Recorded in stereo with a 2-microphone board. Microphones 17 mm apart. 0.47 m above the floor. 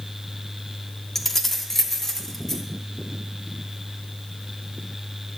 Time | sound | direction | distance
1.1 | keys jangling | 5° left (ahead or behind) | 0.8 m